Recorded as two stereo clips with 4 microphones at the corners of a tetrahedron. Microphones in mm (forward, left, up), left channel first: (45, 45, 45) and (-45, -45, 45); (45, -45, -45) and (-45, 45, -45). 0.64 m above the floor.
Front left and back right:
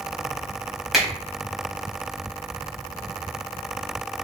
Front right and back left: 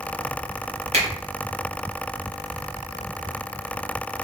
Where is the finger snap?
140° left, 0.8 m.